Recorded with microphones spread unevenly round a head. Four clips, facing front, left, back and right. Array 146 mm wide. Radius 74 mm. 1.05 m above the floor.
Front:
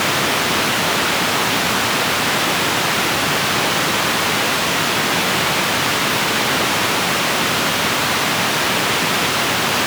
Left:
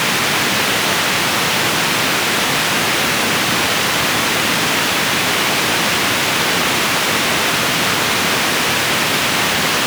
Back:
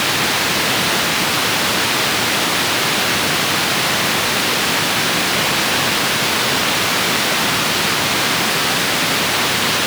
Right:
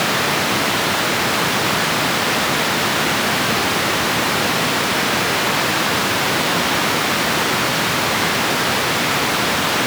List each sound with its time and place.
Only background noise.